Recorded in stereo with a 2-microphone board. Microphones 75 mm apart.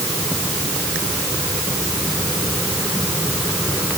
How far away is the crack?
I don't hear a crack.